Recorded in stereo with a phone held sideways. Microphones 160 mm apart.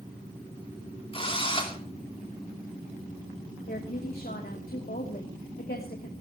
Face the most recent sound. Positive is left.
turn(degrees=70)  # may be behind; listen again after turning